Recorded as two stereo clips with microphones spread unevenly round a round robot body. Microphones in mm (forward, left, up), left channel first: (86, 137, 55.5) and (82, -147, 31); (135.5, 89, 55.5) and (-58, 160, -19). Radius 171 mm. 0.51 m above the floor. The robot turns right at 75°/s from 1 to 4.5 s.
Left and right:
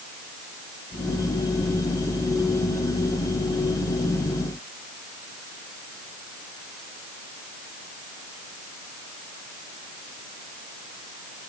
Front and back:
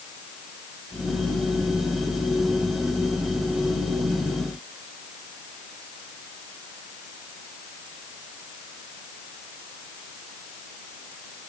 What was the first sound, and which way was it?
Only background noise.